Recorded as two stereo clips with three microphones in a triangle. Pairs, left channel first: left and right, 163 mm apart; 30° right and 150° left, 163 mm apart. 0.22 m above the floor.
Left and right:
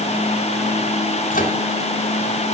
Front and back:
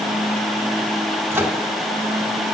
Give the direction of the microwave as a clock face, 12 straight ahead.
9 o'clock.